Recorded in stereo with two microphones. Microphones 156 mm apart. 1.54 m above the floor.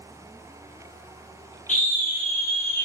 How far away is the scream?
About 0.8 m.